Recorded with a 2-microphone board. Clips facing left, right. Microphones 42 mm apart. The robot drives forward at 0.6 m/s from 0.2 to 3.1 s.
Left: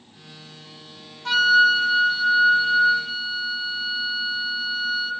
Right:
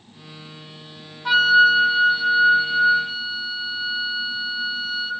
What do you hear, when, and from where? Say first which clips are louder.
1.2 s a flute: right 2 dB; 10° right (ahead or behind), 0.5 m; by 5.1 s 5° right (ahead or behind), 1.4 m